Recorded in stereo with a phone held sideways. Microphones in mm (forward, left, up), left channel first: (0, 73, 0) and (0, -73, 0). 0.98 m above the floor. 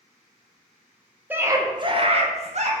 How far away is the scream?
About 0.6 m.